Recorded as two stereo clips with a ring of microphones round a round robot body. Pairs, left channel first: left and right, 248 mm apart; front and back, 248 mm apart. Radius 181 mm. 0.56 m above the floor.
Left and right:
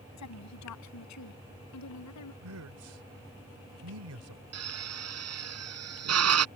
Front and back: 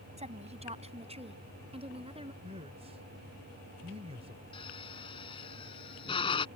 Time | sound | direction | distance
0.2 | a woman speaking | 115° left | ?
2.4 | a man speaking | 110° right | ?
4.5 | a drill | 75° right | ?